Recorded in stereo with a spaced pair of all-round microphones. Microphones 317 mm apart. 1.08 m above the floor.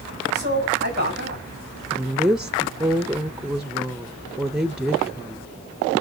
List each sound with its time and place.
0.3 s a man speaking: 35° right (ahead or behind), 6.5 m
1.9 s a woman speaking: 5° right (ahead or behind), 0.6 m